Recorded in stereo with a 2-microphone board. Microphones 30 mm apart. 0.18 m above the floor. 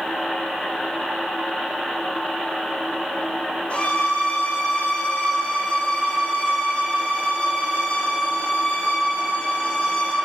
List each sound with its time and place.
3.7 s a violin: 40° left (ahead or behind), 4 m